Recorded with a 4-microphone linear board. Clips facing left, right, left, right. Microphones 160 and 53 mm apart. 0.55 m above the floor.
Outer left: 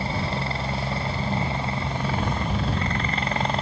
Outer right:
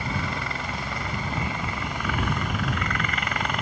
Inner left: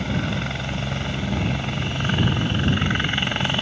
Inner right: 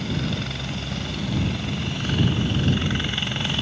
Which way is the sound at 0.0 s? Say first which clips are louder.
Outer left 3 dB, inner left 2 dB; 30° left (ahead or behind).